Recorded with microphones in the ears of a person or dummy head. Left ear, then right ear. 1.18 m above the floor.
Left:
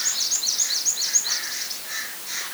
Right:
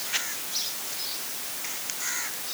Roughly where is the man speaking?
I don't hear a man speaking.